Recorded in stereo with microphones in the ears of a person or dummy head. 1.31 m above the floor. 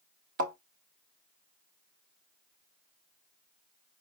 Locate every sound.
0.4 s a thud: 50° right (ahead or behind), 1.0 m